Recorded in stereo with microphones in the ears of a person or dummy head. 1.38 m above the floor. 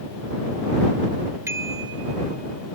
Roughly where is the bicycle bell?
Centre.